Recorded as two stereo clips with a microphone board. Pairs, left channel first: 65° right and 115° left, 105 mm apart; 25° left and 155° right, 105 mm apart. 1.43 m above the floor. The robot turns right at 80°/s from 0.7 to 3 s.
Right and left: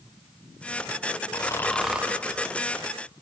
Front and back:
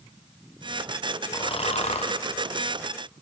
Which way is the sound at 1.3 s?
20° right.